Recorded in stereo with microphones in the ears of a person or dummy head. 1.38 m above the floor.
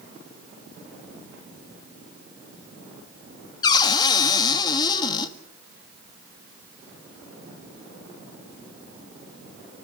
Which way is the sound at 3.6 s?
30° left (ahead or behind).